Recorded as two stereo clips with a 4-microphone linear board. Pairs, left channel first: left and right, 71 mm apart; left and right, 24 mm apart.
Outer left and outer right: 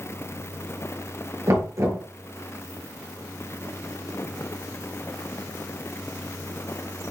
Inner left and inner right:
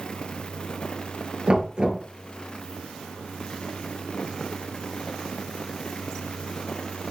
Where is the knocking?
45° right (ahead or behind), 1.6 m.